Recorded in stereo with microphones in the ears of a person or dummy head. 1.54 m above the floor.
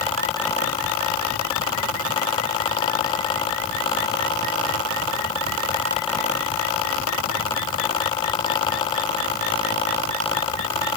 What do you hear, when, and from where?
Only background noise.